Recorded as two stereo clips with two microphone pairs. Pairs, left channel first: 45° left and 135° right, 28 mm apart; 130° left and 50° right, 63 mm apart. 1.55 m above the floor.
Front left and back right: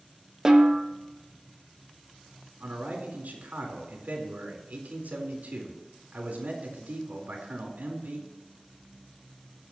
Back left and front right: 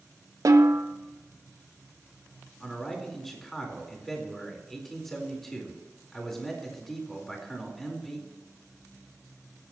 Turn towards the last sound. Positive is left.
turn(degrees=-145)